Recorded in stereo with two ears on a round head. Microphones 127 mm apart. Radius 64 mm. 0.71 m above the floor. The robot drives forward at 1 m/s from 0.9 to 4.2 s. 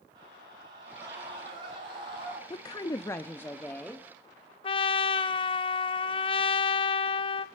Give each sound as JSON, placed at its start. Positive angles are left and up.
{"t": 0.1, "sound": "a scream", "side_deg": -30, "distance_m": 9.0}
{"t": 2.5, "sound": "a woman speaking", "side_deg": 25, "distance_m": 0.5}
{"t": 4.6, "sound": "a trumpet", "side_deg": 35, "distance_m": 0.8}